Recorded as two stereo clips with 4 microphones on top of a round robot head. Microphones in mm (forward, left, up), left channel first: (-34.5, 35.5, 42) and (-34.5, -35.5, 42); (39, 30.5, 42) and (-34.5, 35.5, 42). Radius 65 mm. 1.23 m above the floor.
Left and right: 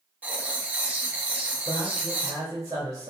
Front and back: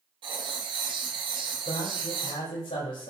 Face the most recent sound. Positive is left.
turn(degrees=-30)